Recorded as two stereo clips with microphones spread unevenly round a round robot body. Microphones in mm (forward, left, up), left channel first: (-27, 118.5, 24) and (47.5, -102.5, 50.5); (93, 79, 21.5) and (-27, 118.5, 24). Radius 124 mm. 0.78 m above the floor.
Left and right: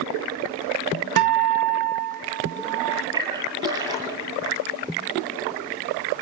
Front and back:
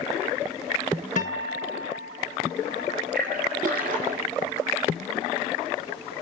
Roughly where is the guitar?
Right.